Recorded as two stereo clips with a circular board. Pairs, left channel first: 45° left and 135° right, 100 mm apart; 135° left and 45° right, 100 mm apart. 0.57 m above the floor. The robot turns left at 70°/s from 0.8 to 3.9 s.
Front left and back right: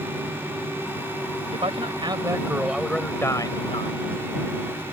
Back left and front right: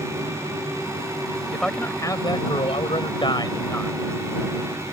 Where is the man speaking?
135° right; by 4.0 s 60° left.